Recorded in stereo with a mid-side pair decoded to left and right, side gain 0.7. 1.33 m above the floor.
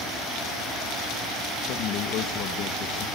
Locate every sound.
1.6 s a man speaking: 55° left, 1.5 m